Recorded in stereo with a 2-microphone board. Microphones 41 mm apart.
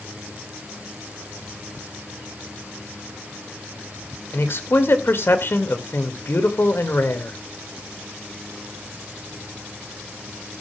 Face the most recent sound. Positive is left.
turn(degrees=65)  # may be behind; listen again after turning